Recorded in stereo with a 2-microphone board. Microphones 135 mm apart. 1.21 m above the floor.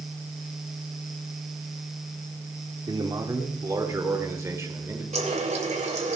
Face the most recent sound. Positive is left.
turn(degrees=-55)  # may be behind; listen again after turning